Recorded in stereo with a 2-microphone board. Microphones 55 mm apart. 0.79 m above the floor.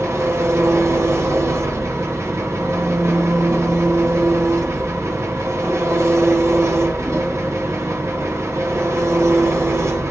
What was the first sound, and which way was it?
An engine running, 55° right (ahead or behind).